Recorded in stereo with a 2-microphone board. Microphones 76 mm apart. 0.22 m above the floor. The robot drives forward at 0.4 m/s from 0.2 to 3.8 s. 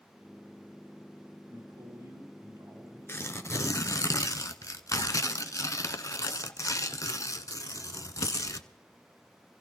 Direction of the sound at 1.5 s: 55° right (ahead or behind).